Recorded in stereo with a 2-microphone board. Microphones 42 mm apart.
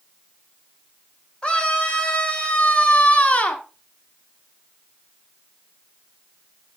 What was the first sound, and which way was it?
A scream, 20° left (ahead or behind).